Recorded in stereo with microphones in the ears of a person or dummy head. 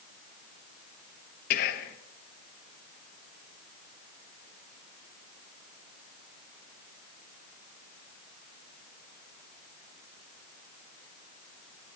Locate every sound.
1.5 s whispering: 50° left (ahead or behind), 1.2 m